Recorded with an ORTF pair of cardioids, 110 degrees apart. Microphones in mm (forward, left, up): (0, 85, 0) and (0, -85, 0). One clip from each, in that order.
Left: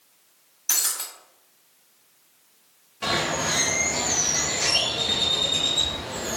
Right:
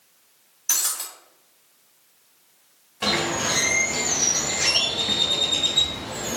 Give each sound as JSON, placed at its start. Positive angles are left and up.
{"t": 0.7, "sound": "breaking glass", "azimuth_deg": 5, "distance_m": 1.3}
{"t": 3.0, "sound": "a bird", "azimuth_deg": -30, "distance_m": 0.9}